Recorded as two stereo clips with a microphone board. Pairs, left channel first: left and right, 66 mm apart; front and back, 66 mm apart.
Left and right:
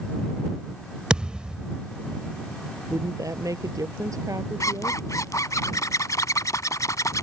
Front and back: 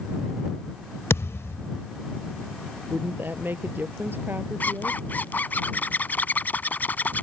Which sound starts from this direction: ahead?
A thud, at 1.1 s.